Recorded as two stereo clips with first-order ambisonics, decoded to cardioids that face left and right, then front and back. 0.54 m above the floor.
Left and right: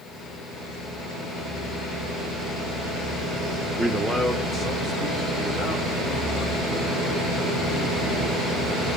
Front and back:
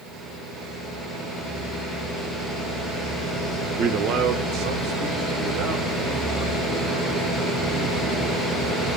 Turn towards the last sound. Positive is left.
turn(degrees=-175)